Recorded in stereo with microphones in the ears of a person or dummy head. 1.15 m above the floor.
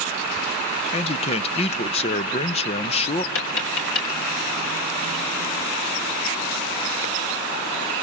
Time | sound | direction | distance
0.9 | a man speaking | 35° left (ahead or behind) | 0.7 m
3.4 | tapping | 75° left (ahead or behind) | 5 m